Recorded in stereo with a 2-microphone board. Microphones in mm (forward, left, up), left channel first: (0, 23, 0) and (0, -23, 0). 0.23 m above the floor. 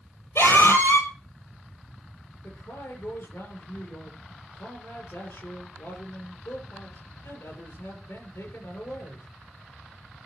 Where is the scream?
80° left, 7 m.